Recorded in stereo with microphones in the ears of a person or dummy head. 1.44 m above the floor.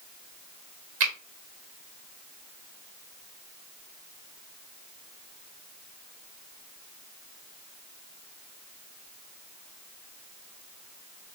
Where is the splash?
I don't hear a splash.